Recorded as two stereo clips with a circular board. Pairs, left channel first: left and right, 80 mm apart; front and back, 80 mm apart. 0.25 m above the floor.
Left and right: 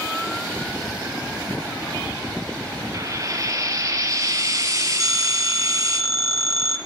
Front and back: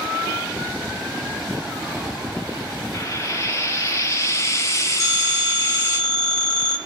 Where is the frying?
45° right, 1.7 m.